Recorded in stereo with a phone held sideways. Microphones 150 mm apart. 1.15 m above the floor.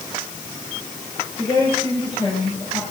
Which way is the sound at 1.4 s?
40° left (ahead or behind).